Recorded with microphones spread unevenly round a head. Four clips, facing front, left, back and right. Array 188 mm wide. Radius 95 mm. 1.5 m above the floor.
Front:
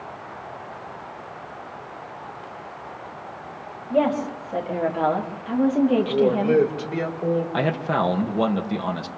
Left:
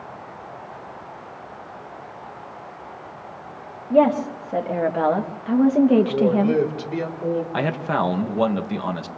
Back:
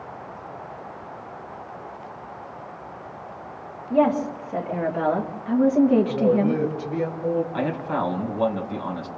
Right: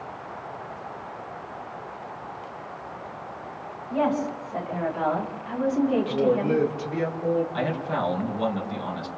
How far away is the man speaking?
About 2.5 m.